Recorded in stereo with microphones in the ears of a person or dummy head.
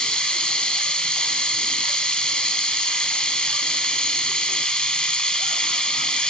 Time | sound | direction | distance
0.0 | running water | 5° left (ahead or behind) | 1.4 m